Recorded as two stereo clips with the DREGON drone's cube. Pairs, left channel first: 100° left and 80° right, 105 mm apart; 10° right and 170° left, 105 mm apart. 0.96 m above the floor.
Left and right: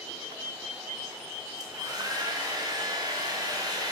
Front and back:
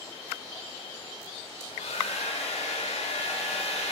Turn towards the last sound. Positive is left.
turn(degrees=-20)